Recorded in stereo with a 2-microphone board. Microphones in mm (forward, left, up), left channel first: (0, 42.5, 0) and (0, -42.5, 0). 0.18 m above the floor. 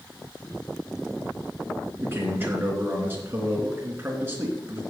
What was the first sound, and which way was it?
A man speaking, 25° right (ahead or behind).